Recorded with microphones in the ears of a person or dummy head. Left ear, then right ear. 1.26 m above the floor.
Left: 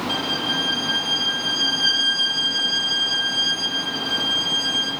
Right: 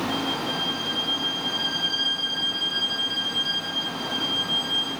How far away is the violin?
About 5.5 m.